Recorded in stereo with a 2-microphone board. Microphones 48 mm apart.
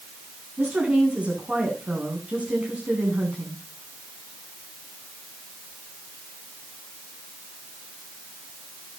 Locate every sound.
0.6 s a woman speaking: 30° right (ahead or behind), 9.5 m